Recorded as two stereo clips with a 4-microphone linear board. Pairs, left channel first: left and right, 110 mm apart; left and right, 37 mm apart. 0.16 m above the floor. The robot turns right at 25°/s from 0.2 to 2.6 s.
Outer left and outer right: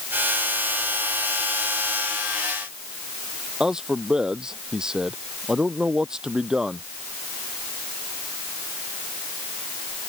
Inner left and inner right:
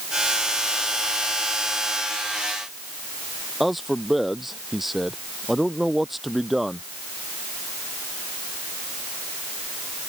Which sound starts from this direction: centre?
A man speaking, at 3.6 s.